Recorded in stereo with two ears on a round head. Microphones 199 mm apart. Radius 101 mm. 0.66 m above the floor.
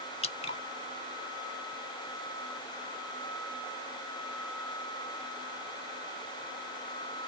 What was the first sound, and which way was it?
Dripping, 30° left (ahead or behind).